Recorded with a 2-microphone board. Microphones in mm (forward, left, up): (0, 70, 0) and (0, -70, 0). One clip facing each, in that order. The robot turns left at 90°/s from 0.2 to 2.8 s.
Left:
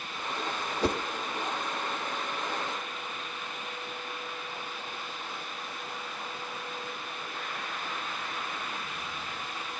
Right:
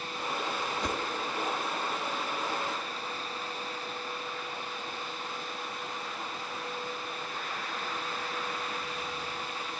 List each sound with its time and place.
0.8 s a whoosh: 35° left (ahead or behind), 1.2 m; by 1.0 s 25° left (ahead or behind), 1.2 m